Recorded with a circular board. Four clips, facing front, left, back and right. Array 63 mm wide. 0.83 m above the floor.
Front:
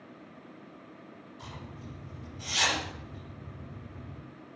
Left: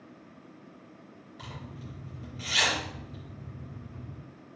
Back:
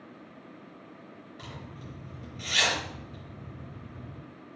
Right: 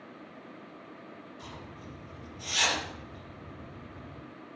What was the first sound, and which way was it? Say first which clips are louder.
A zipper: left 5 dB, back 1 dB; 145° left.